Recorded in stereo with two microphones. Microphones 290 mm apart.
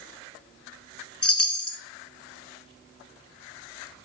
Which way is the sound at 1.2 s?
55° left (ahead or behind).